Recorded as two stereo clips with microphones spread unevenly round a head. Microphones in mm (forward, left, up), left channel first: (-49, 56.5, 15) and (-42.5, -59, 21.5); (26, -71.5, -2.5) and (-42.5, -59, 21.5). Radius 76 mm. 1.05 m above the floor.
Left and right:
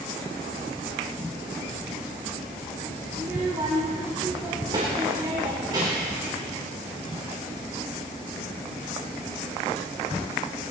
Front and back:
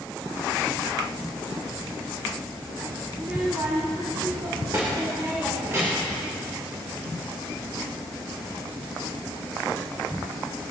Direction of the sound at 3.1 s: 140° right.